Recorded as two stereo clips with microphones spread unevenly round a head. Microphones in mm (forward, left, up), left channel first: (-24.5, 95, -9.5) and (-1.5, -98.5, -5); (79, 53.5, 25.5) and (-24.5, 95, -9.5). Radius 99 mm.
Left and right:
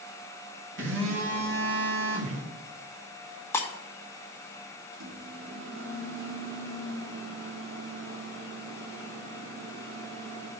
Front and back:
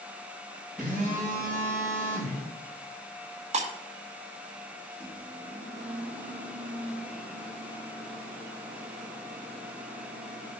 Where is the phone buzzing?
110° right, 2.5 m.